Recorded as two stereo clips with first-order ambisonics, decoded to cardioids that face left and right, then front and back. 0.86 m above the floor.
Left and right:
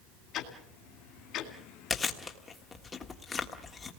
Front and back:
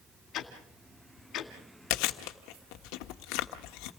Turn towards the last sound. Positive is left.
turn(degrees=15)